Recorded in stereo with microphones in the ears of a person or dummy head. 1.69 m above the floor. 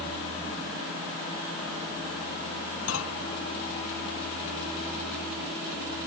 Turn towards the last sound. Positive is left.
turn(degrees=75)  # may be behind; listen again after turning